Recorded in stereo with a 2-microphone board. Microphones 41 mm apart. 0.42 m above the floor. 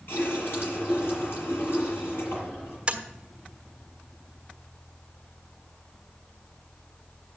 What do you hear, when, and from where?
0.1 s a running tap: 70° left (ahead or behind), 6.5 m
2.9 s tapping: 25° right (ahead or behind), 1.4 m